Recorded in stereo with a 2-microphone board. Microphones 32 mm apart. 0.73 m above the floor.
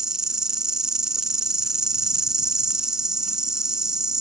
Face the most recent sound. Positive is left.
turn(degrees=-20)  # may be behind; listen again after turning